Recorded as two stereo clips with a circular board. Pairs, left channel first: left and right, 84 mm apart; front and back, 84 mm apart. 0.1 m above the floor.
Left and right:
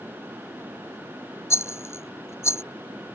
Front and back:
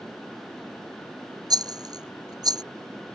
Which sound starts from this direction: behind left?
A rattle, at 1.5 s.